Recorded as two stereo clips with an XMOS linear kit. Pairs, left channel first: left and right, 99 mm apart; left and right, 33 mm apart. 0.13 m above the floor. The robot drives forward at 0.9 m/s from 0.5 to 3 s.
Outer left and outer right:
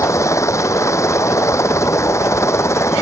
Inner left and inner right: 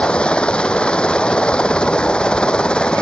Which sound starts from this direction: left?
A helicopter, at 0.0 s.